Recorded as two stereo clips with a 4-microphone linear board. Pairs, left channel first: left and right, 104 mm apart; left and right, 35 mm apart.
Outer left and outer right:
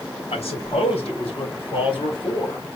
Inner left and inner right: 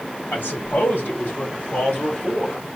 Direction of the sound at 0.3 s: 80° left.